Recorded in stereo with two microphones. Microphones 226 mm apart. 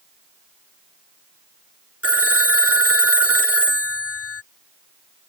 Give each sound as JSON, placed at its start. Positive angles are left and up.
{"t": 2.0, "sound": "a phone ringing", "side_deg": 75}